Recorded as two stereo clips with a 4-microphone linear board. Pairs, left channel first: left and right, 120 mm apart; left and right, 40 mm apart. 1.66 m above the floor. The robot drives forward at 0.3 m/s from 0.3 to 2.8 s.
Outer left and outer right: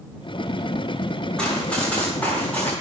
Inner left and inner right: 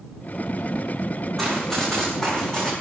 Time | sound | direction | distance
1.4 | running footsteps | 10° left (ahead or behind) | 7 m